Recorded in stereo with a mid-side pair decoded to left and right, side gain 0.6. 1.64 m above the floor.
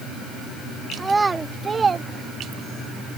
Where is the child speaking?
15° right; by 2.9 s 55° right.